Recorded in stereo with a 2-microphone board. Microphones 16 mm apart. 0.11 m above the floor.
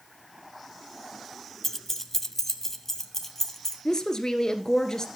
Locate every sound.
1.6 s keys jangling: 20° left (ahead or behind), 0.9 m
3.9 s a woman speaking: 45° left (ahead or behind), 1.7 m